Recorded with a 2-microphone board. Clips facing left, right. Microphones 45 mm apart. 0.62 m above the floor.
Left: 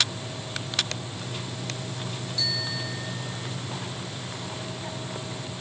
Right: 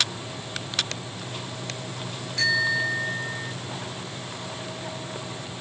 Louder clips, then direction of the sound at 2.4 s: Right 11 dB; 60° right (ahead or behind).